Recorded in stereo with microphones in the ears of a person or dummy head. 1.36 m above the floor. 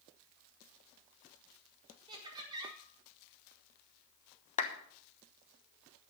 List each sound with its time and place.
2.1 s laughter: 25° right (ahead or behind), 5 m
4.6 s a clap: 35° left (ahead or behind), 1.2 m